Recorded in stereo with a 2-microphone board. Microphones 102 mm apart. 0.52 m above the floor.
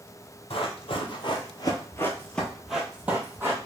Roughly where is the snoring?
I don't hear snoring.